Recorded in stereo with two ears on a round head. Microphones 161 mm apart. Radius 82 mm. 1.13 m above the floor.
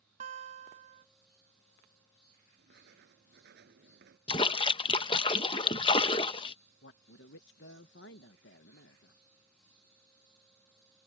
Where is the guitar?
35° right (ahead or behind).